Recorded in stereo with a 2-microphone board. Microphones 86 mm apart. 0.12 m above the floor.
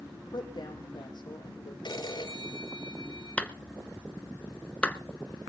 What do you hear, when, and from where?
0.1 s a woman speaking: 55° left (ahead or behind), 4.5 m
1.9 s a phone ringing: 60° left (ahead or behind), 2 m
3.4 s a clap: 15° left (ahead or behind), 0.9 m